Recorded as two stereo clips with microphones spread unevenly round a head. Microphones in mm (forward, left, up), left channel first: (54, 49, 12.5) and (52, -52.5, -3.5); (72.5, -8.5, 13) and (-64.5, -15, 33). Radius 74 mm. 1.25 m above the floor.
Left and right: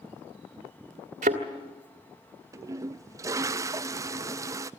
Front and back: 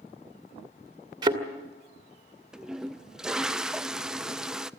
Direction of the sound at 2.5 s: 85° right.